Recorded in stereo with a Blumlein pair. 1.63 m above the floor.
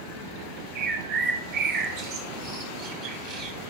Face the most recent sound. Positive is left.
turn(degrees=-35)